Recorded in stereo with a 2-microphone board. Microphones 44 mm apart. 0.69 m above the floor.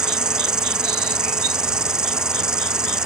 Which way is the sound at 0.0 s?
15° right (ahead or behind).